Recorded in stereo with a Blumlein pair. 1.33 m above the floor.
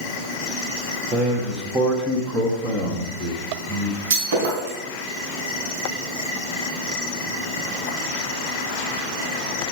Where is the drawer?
No drawer in this recording.